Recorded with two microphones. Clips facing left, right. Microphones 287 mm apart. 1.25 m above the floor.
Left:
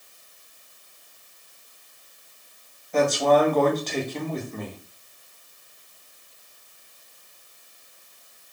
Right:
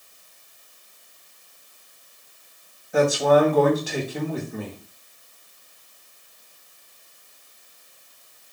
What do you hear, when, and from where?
2.9 s a man speaking: 10° right (ahead or behind), 0.8 m